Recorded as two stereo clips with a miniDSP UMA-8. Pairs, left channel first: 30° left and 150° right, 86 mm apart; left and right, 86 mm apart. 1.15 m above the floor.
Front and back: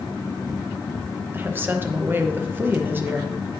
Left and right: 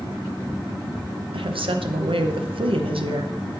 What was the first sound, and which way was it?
A woman speaking, 85° right.